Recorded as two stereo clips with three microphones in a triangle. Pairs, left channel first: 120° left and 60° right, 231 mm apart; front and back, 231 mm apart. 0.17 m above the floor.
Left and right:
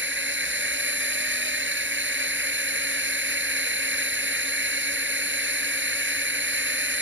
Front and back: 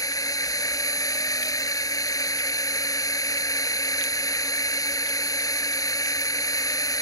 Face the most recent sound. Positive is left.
turn(degrees=-70)